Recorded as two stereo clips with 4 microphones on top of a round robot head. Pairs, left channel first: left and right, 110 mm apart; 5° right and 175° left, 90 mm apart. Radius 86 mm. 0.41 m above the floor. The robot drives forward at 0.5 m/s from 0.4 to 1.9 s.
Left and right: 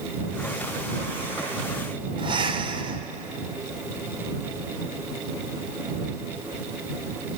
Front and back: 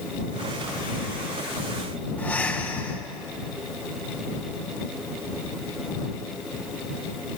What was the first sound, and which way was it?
Breathing, 70° right.